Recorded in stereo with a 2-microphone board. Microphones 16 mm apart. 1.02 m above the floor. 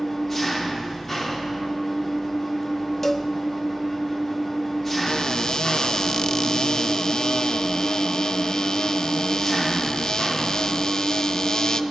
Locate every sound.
0.0 s an engine running: 15° left (ahead or behind), 2.5 m
3.0 s a cowbell: 20° left (ahead or behind), 0.7 m
5.1 s a cupboard door: 50° left (ahead or behind), 0.6 m